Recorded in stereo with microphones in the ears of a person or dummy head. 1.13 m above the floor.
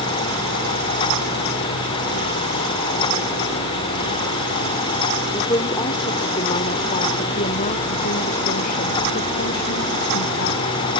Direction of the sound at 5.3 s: 15° left (ahead or behind).